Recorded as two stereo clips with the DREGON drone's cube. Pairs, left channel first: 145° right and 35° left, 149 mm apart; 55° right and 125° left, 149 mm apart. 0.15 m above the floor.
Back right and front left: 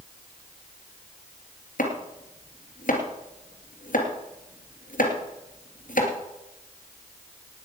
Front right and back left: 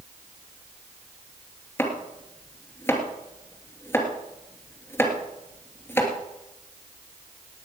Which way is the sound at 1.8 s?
130° right.